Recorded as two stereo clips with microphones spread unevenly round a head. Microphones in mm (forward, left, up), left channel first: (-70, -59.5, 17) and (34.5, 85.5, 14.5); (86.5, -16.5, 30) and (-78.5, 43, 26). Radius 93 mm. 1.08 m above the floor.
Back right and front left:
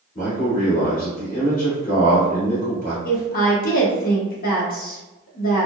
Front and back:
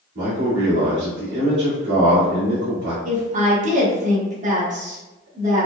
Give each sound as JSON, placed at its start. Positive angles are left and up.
{"t": 0.1, "sound": "a man speaking", "azimuth_deg": -170, "distance_m": 1.7}
{"t": 3.0, "sound": "a woman speaking", "azimuth_deg": -155, "distance_m": 1.1}